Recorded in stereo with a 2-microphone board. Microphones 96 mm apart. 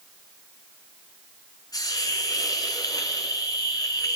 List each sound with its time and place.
1.7 s a hiss: 40° left (ahead or behind), 2.5 m